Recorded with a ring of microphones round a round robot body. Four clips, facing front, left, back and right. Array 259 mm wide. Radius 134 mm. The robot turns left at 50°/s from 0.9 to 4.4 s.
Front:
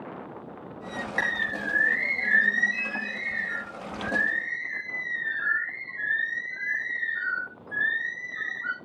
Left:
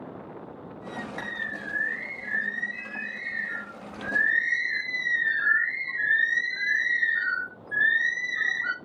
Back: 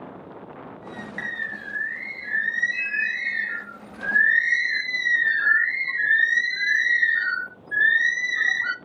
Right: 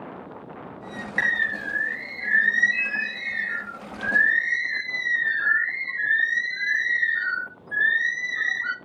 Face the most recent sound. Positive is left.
turn(degrees=180)